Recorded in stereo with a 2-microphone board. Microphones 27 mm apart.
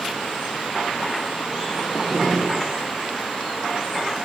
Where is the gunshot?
10° right (ahead or behind), 8 m.